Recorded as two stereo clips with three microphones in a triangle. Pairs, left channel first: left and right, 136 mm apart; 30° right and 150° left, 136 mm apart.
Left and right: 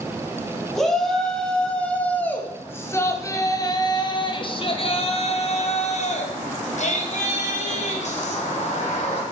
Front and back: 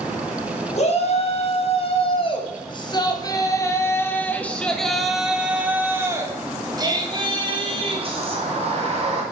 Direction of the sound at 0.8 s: Straight ahead.